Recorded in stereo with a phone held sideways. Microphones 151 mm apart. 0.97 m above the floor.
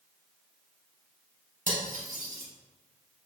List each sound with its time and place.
1.7 s cutlery clinking: 65° right (ahead or behind), 1.0 m